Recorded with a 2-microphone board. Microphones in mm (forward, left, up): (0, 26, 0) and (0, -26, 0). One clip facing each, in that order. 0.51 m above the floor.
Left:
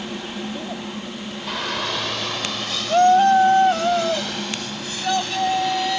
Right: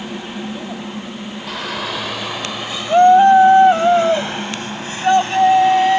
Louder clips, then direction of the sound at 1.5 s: Right 1 dB; centre (ahead or behind).